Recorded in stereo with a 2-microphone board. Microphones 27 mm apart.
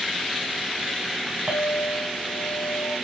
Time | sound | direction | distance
1.5 | a clink | 25° right (ahead or behind) | 0.9 m